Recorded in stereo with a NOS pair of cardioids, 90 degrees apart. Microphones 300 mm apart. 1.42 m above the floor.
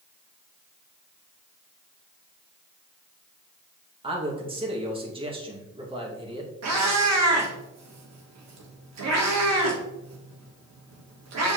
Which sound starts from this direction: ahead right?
A cat meowing, at 6.6 s.